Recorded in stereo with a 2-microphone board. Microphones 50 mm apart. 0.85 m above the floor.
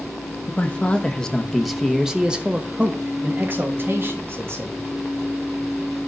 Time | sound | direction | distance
0.5 | a man speaking | 25° left (ahead or behind) | 1.3 m